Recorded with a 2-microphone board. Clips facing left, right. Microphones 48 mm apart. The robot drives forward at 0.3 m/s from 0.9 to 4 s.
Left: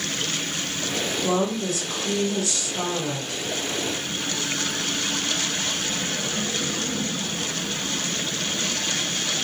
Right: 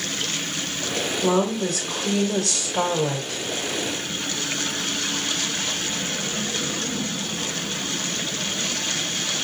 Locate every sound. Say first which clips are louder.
1.2 s a woman speaking: right 3 dB; 70° right (ahead or behind), 1.2 m; by 3.4 s 65° right (ahead or behind), 1.3 m